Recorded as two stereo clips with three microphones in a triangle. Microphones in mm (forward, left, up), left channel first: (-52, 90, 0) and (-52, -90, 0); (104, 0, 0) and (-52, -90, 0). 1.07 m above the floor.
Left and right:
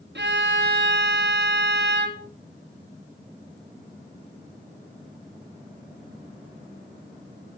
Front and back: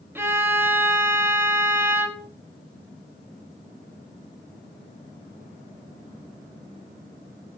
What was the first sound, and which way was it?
A violin, 70° right.